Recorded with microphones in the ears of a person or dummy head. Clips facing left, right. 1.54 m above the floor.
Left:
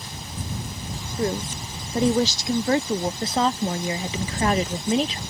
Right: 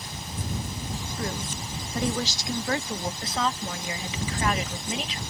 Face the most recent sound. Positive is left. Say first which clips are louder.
# left 5 dB
turn(degrees=35)  # may be behind; listen again after turning